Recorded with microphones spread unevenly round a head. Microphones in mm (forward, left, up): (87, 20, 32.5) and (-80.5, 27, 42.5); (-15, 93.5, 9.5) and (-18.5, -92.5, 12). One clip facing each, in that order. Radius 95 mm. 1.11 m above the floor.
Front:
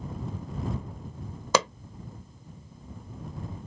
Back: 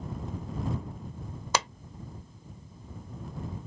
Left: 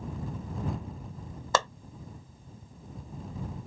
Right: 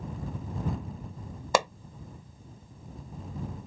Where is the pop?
15° right.